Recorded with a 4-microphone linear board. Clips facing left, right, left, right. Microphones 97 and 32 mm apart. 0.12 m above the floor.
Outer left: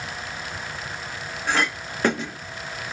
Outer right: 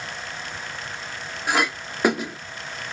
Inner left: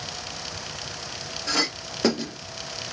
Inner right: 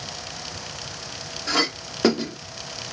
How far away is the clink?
About 1.2 m.